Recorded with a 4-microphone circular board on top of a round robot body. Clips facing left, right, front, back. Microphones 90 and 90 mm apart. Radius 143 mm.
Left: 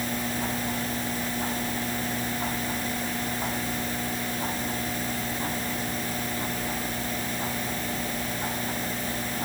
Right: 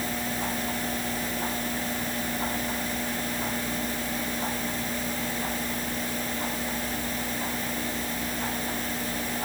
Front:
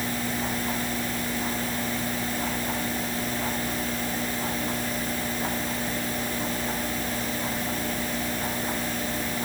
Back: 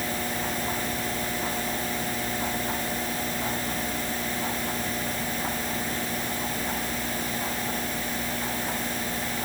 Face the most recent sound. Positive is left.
No sound to turn to.